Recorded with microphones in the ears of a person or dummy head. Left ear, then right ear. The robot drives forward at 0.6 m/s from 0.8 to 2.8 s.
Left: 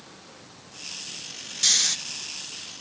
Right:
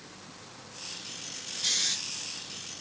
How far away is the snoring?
About 0.6 m.